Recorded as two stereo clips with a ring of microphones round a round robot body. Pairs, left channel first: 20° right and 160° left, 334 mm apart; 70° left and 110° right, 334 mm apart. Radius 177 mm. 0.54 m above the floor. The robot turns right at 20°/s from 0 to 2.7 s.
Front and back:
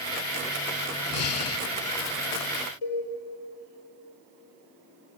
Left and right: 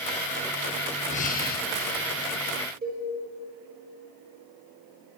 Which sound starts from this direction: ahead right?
A cowbell, at 2.8 s.